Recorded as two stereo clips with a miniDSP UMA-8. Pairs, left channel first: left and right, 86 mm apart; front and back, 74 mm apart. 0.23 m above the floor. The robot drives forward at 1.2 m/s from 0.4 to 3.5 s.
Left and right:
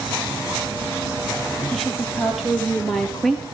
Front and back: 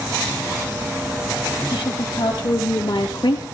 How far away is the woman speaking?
About 6 m.